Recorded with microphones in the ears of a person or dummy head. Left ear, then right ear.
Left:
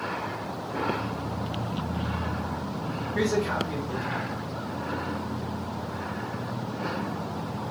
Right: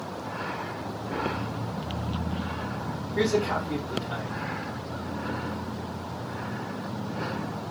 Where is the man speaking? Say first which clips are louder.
Right 1 dB; 60° left (ahead or behind), 3 m.